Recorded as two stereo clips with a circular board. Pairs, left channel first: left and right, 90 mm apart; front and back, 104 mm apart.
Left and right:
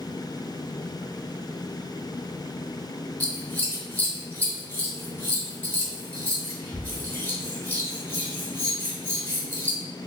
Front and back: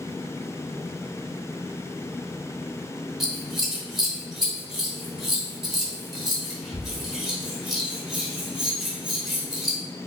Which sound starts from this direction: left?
Scissors, at 3.2 s.